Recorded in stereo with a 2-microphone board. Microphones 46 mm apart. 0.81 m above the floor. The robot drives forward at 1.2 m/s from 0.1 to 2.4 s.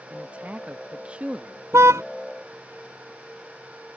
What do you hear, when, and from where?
0.1 s a man speaking: 30° right (ahead or behind); by 1.6 s 20° right (ahead or behind)
1.7 s a car horn: 85° right